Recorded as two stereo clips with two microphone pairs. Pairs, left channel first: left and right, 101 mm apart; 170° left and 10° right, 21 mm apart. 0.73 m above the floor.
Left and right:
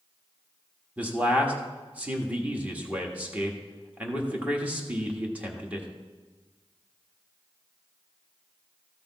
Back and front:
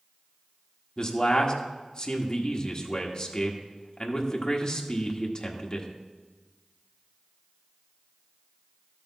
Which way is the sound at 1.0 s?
160° right.